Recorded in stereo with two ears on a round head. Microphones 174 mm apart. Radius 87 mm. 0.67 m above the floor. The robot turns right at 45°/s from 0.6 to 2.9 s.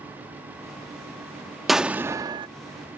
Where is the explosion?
Straight behind; by 2.5 s 145° right.